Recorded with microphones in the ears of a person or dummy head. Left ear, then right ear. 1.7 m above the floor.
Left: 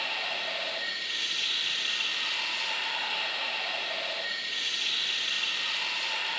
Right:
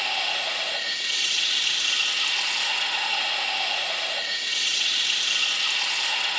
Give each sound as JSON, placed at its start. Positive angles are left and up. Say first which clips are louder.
{"t": 0.0, "sound": "running water", "louder": "right 6 dB", "side_deg": -85, "distance_m": 7.0}